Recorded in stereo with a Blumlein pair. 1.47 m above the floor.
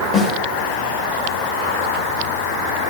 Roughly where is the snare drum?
Ahead.